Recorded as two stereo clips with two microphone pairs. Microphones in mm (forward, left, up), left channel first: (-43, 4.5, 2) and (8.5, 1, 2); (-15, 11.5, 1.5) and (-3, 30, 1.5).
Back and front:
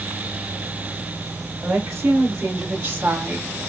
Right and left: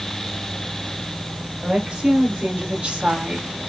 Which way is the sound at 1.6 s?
20° left.